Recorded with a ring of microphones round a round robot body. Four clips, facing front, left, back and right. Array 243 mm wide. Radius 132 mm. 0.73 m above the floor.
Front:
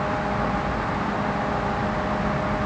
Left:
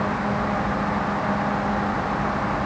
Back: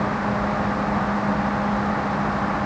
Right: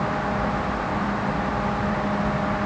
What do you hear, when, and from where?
Only background noise.